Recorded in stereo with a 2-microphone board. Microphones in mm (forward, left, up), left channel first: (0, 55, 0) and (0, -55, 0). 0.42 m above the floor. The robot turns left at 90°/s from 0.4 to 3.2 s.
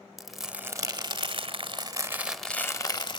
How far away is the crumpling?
About 1.9 m.